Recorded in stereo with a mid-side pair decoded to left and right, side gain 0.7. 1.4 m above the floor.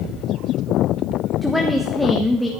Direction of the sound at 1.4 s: 10° left.